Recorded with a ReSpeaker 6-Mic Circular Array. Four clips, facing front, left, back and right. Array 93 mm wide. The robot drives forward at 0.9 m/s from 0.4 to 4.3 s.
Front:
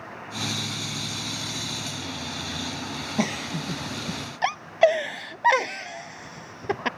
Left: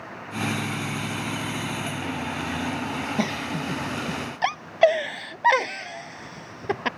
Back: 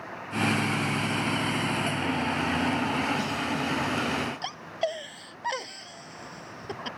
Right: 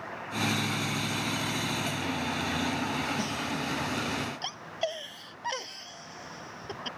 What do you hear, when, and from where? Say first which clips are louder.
3.2 s a giggle: left 5 dB, front 1 dB; 45° left; by 6.9 s 55° left